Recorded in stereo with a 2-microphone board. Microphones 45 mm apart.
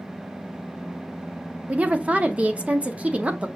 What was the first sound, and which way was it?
A woman speaking, 30° right (ahead or behind).